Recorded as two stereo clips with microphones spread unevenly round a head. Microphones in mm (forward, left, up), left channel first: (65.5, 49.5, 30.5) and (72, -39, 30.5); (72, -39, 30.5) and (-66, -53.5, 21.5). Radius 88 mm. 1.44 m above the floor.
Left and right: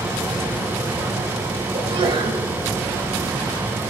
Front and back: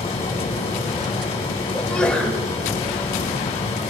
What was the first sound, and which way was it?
A fan, 30° right.